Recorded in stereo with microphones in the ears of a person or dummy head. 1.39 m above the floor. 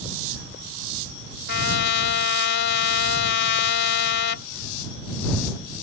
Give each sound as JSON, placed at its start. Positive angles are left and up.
{"t": 1.5, "sound": "a trumpet", "side_deg": 55}